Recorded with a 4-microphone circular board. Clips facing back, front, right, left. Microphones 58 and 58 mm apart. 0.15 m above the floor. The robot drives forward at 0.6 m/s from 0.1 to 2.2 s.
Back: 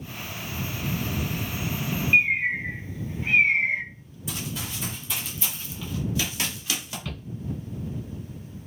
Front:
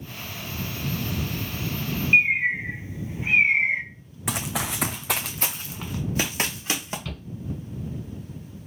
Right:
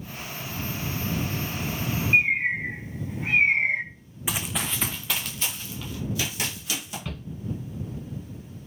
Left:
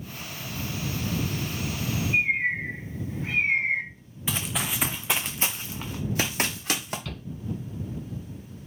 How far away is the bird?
About 1.0 m.